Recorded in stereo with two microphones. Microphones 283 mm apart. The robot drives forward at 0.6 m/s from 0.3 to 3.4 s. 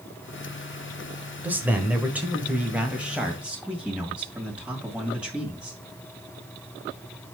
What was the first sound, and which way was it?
A man speaking, 5° right (ahead or behind).